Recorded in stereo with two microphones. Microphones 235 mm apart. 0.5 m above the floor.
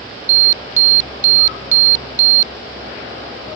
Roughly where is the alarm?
Right.